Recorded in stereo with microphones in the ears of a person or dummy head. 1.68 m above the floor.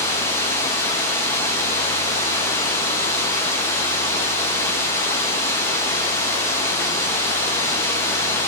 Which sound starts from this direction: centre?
Running water, at 0.0 s.